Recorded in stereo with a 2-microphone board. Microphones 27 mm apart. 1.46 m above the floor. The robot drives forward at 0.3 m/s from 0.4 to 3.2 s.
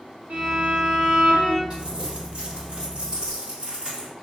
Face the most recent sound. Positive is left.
turn(degrees=-40)  # may be behind; listen again after turning